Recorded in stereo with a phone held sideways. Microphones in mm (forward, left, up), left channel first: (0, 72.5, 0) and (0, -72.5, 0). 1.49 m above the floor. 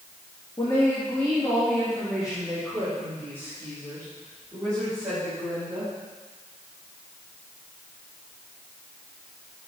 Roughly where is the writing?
No writing in this recording.